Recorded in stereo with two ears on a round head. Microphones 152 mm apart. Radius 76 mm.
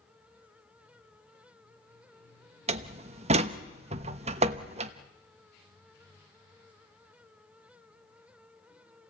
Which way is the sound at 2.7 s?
40° right (ahead or behind).